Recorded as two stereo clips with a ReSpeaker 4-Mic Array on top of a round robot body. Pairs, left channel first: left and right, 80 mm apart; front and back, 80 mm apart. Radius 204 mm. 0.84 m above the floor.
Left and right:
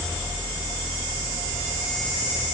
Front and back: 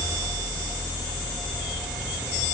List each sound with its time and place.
Only background noise.